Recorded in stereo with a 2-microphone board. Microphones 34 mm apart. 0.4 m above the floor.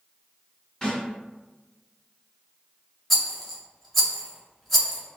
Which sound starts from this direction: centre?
A rattle, at 3.1 s.